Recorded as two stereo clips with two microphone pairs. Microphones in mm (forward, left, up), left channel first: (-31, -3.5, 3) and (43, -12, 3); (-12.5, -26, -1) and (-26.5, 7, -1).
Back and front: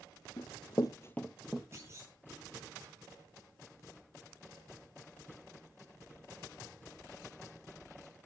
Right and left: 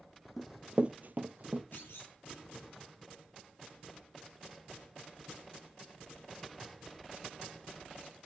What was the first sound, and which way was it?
Running footsteps, 160° right.